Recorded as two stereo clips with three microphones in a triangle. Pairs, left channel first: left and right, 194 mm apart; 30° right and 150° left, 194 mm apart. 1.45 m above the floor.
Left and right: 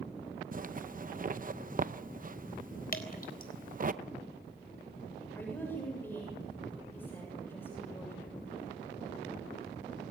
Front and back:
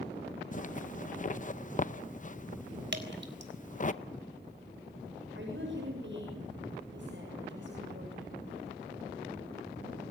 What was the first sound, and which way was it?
A zipper, 65° right.